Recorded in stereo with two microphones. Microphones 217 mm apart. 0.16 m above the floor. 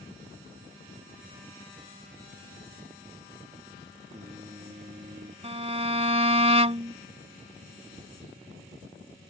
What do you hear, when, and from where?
4.1 s singing: 30° right (ahead or behind)
5.4 s a violin: 30° right (ahead or behind)